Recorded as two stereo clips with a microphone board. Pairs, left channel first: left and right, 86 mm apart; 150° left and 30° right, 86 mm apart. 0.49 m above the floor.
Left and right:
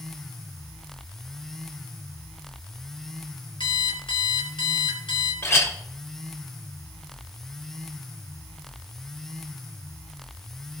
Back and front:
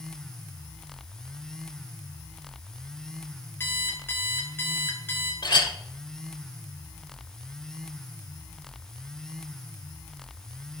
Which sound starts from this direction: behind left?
A clink, at 5.4 s.